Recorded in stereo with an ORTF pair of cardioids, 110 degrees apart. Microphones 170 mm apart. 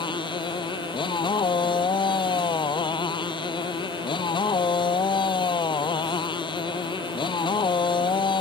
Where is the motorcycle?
30° left.